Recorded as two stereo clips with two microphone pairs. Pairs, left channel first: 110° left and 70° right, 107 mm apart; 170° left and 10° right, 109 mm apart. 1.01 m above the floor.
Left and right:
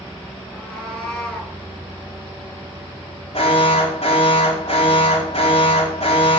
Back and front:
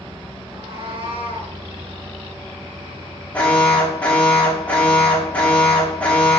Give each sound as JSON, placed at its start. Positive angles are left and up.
{"t": 0.5, "sound": "a cat meowing", "azimuth_deg": 25, "distance_m": 5.0}
{"t": 3.3, "sound": "an alarm", "azimuth_deg": 95, "distance_m": 4.0}